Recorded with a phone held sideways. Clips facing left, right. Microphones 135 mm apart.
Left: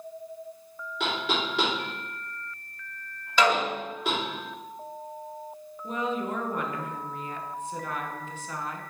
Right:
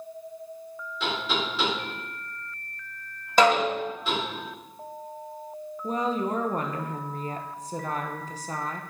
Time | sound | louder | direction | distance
1.0 | knocking | even | 80° left | 3 m
3.4 | a snare drum | right 4 dB | 45° right (ahead or behind) | 1.5 m
5.8 | a woman speaking | right 3 dB | 35° right (ahead or behind) | 0.8 m